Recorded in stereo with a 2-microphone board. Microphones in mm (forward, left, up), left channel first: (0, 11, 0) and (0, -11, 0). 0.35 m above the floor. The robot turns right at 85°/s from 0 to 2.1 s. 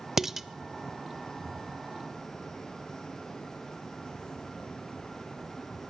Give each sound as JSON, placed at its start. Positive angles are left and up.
{"t": 0.2, "sound": "dishes clattering", "side_deg": -10, "distance_m": 0.5}